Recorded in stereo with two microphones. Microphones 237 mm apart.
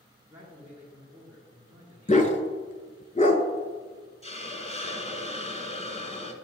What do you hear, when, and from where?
0.3 s a man speaking: 10° right (ahead or behind), 2 m
2.1 s a dog barking: 30° left (ahead or behind), 0.8 m
4.2 s a hiss: 25° left (ahead or behind), 0.9 m